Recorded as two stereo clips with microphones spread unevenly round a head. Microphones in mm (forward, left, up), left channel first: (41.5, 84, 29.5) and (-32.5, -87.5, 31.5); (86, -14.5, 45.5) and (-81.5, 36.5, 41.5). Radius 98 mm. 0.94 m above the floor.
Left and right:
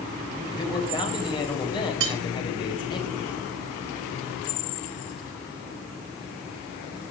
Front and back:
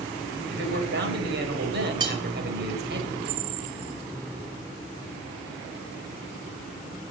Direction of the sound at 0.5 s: 135° left.